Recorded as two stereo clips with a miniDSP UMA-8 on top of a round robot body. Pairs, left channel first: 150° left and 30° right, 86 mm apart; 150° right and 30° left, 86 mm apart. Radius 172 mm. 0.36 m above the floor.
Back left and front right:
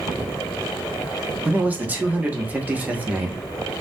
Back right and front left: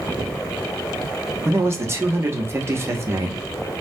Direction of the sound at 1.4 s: 20° left.